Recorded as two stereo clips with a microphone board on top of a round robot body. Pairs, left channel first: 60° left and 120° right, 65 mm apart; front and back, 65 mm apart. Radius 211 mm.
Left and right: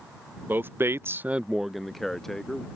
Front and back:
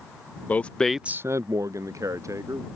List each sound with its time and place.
0.5 s a man speaking: 65° right; by 2.6 s 145° left